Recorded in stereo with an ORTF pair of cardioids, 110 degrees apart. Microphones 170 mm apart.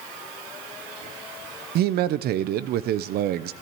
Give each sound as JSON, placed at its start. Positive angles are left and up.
{"t": 1.8, "sound": "a man speaking", "azimuth_deg": -70, "distance_m": 0.8}